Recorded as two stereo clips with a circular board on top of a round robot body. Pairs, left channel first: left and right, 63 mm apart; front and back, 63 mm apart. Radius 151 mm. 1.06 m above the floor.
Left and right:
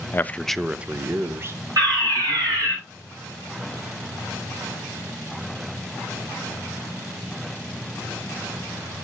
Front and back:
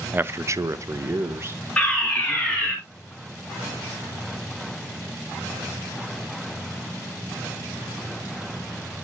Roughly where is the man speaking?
Behind left.